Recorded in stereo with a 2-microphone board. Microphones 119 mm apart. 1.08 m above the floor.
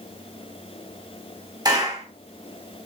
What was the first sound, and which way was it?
A clap, 35° right (ahead or behind).